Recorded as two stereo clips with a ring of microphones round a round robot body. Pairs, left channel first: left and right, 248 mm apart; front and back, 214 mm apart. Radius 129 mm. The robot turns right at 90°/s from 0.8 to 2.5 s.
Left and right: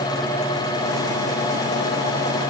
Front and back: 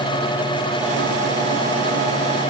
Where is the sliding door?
No sliding door in this recording.